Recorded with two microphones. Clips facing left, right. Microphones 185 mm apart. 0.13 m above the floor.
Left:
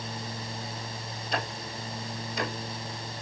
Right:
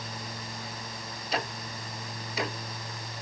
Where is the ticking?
5° right (ahead or behind), 1.3 m.